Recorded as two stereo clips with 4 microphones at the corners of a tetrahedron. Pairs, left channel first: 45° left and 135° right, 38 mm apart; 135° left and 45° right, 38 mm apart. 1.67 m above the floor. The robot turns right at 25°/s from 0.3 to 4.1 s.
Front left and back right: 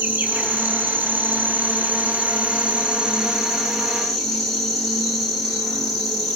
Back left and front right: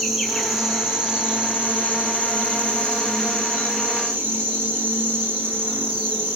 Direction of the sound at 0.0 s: 130° right.